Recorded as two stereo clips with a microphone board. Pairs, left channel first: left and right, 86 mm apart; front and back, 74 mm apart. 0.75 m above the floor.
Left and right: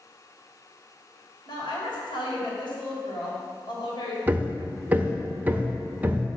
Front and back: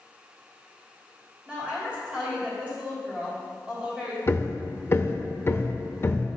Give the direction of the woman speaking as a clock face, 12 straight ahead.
8 o'clock.